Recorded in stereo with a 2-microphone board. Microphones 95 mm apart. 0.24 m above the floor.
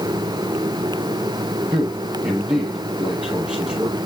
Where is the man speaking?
10° right (ahead or behind), 6.5 m.